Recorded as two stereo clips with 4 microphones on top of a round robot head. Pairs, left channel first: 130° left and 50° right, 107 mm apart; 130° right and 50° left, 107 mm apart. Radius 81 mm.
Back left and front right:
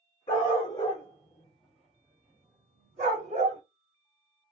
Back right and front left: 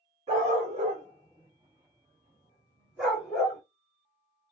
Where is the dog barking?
85° left, 1.7 m; by 3.6 s 40° right, 1.8 m.